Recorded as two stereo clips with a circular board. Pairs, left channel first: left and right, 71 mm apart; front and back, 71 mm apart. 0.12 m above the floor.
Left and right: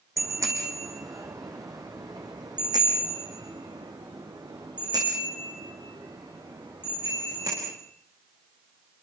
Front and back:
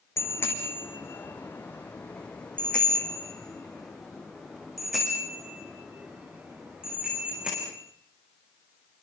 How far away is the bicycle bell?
About 4.5 m.